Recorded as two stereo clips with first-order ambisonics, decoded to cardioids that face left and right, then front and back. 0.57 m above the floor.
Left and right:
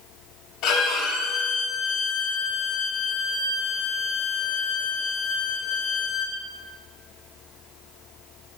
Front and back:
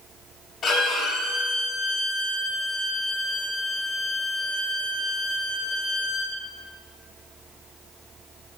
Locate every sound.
0.6 s a violin: 60° left, 1.0 m